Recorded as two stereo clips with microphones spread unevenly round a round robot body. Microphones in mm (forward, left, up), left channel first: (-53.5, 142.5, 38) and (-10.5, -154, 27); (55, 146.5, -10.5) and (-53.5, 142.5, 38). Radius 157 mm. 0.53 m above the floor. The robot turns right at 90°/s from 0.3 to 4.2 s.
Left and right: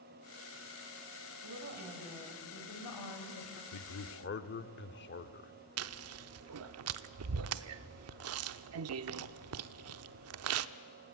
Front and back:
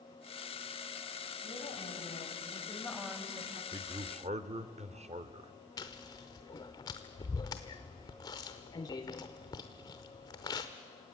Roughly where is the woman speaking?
Ahead right.